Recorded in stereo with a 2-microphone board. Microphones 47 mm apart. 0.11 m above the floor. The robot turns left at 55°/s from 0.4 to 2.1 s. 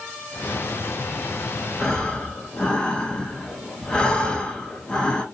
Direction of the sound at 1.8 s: 10° left (ahead or behind).